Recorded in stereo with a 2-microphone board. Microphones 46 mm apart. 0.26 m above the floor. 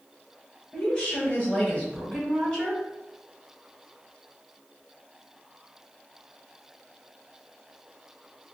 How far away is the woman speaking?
About 1.9 m.